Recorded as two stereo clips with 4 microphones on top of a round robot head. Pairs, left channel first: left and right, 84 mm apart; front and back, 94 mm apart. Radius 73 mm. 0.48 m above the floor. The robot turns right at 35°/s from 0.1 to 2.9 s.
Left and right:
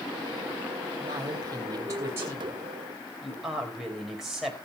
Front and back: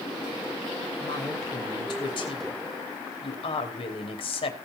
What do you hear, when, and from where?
1.0 s a woman speaking: 70° right, 3 m; by 4.5 s 5° right, 3 m